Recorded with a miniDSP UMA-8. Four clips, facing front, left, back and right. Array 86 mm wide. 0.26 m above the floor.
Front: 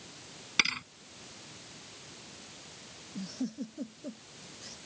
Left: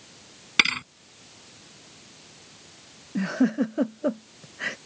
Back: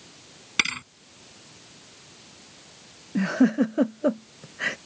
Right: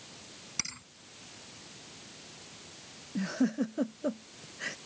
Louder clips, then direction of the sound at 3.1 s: Left 6 dB, back 17 dB; 155° left.